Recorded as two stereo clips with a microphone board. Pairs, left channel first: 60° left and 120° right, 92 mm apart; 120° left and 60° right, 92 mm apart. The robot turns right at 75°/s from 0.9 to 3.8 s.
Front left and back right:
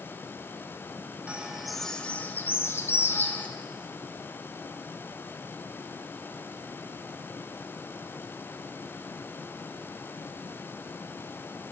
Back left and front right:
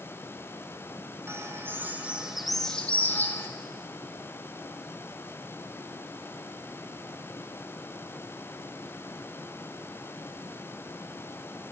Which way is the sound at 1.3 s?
60° right.